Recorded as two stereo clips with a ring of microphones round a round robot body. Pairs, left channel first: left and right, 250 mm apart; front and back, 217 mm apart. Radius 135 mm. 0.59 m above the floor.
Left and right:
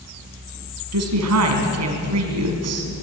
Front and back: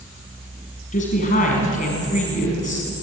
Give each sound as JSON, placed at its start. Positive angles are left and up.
{"t": 0.9, "sound": "a woman speaking", "azimuth_deg": -65, "distance_m": 5.0}